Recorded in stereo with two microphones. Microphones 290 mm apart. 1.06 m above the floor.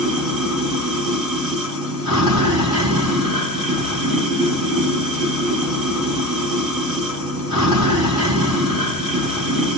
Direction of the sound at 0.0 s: 15° right (ahead or behind).